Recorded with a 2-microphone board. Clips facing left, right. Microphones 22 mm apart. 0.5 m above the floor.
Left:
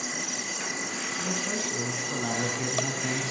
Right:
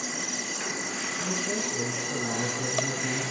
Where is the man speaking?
50° left (ahead or behind), 5 m; by 3.3 s 60° left (ahead or behind), 4 m.